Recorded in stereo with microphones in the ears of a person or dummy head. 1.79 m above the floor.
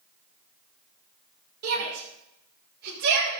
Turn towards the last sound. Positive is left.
turn(degrees=-60)  # may be behind; listen again after turning